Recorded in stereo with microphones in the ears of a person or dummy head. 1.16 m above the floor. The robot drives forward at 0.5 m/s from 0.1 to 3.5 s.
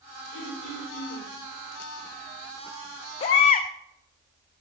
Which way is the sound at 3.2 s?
20° left (ahead or behind).